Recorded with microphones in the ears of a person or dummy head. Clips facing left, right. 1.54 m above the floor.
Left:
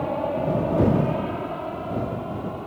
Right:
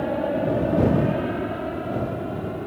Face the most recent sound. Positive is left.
turn(degrees=-25)  # may be behind; listen again after turning